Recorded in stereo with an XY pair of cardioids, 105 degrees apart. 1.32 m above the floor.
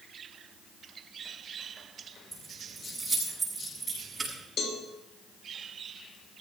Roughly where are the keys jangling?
Ahead.